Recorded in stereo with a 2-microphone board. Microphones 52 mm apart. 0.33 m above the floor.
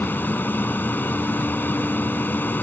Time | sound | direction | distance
0.0 | an aircraft | 40° left (ahead or behind) | ?